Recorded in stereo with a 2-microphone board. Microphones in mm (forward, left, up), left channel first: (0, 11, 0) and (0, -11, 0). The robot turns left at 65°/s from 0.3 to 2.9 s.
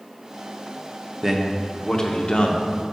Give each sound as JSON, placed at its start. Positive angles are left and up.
{"t": 1.2, "sound": "a man speaking", "azimuth_deg": -160, "distance_m": 0.8}